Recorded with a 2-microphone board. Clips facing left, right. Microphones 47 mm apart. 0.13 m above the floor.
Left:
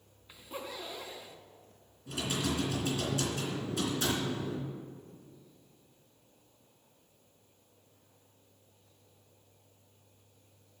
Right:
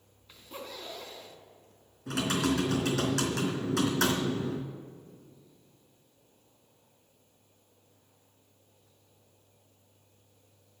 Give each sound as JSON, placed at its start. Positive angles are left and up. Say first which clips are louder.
{"t": 0.3, "sound": "a zipper", "louder": "left 1 dB", "side_deg": 15, "distance_m": 3.5}
{"t": 2.1, "sound": "typing on a keyboard", "louder": "right 5 dB", "side_deg": -70, "distance_m": 3.0}